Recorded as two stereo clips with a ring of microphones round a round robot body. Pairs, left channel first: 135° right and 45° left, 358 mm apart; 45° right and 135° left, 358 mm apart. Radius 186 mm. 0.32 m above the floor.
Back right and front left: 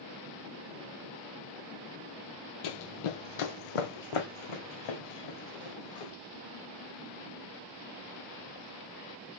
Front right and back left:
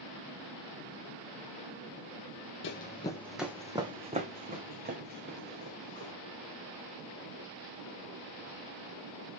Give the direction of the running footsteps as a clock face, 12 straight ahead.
3 o'clock.